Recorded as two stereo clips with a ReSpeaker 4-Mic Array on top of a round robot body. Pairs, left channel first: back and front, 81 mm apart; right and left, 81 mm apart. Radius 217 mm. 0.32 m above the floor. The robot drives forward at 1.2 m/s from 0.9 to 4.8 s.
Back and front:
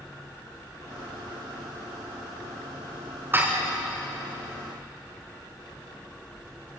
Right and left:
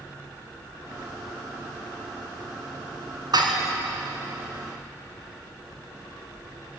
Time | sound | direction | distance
3.3 | dishes clattering | 65° left | 3.5 m